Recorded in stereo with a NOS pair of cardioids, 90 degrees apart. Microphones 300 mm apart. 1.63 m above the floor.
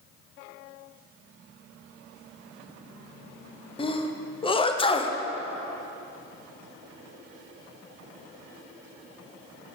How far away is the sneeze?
About 0.7 m.